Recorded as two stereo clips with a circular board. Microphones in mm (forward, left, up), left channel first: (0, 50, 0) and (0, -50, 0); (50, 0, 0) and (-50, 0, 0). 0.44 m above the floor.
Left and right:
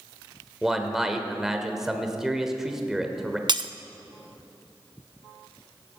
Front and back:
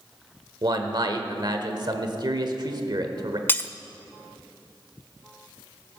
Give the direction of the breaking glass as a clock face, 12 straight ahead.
2 o'clock.